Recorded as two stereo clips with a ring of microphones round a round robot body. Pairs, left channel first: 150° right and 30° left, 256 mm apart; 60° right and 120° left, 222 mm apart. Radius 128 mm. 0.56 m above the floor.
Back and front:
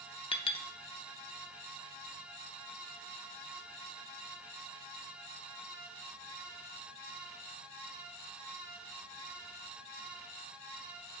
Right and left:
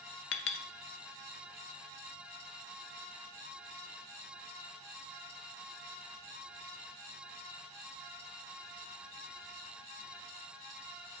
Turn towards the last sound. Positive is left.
turn(degrees=-80)